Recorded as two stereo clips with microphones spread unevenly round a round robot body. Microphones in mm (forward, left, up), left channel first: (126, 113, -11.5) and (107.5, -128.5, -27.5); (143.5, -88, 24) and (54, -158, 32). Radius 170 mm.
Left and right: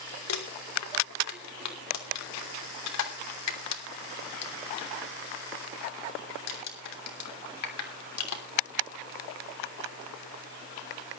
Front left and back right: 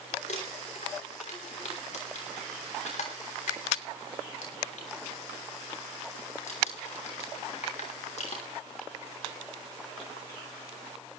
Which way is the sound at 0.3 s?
70° left.